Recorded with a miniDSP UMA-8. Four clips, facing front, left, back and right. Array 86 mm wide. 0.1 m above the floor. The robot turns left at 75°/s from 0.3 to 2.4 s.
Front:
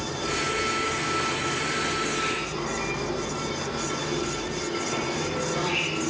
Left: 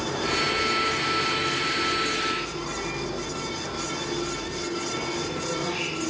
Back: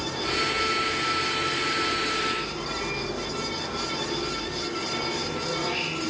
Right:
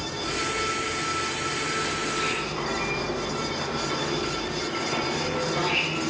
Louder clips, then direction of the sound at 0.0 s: Left 3 dB, even; 90° left.